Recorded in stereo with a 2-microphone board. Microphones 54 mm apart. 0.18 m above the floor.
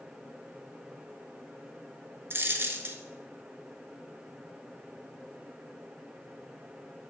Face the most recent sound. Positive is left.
turn(degrees=-45)  # may be behind; listen again after turning